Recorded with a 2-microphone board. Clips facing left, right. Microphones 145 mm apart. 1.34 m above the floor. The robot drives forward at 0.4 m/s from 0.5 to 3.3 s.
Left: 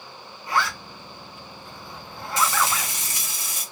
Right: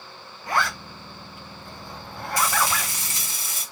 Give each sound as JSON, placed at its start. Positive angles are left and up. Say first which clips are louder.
{"t": 0.5, "sound": "a zipper", "louder": "even", "side_deg": -50, "distance_m": 2.0}
{"t": 2.4, "sound": "frying", "louder": "left 1 dB", "side_deg": 25, "distance_m": 1.1}